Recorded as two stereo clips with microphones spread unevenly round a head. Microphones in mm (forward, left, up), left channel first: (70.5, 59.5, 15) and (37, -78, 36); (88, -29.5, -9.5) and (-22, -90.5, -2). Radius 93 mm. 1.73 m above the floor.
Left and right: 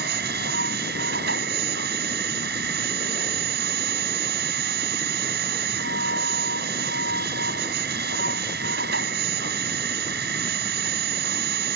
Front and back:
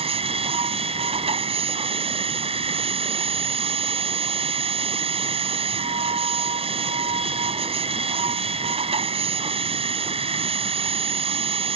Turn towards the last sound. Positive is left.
turn(degrees=-110)